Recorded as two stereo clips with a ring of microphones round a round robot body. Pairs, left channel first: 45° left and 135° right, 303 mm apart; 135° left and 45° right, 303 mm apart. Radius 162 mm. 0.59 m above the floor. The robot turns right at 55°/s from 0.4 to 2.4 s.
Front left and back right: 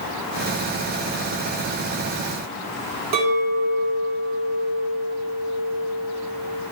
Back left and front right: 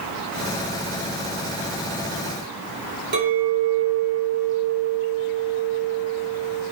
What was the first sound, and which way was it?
A clink, 100° right.